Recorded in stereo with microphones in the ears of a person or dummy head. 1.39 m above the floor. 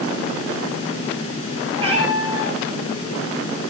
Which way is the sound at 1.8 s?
25° right (ahead or behind).